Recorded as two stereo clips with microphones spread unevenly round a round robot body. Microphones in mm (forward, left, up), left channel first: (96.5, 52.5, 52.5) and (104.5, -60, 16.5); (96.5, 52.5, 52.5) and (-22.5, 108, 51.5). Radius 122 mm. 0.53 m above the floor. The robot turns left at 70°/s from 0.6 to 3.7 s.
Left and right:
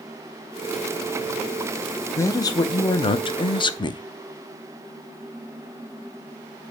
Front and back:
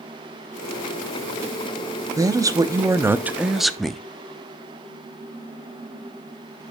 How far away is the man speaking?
About 0.6 m.